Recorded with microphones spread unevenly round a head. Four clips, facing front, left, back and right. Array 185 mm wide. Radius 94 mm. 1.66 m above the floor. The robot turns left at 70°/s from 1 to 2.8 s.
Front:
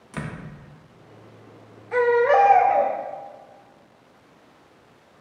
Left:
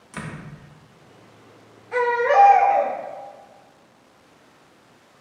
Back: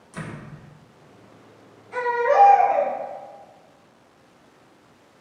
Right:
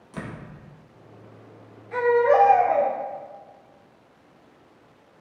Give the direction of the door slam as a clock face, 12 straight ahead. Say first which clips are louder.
Left 1 dB, front 2 dB; 12 o'clock.